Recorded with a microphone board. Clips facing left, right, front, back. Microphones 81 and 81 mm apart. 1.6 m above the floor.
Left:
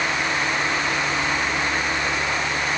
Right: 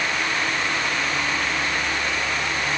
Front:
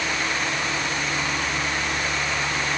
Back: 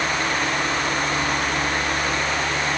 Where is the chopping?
No chopping in this recording.